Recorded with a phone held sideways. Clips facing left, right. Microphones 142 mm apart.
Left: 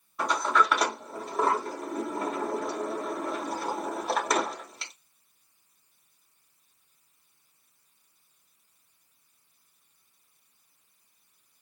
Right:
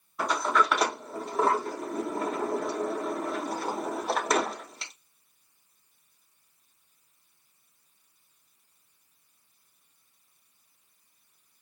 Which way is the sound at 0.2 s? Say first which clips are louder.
Even; centre (ahead or behind).